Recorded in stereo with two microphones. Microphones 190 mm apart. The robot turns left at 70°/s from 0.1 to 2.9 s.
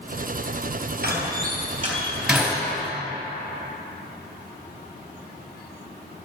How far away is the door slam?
About 2.5 m.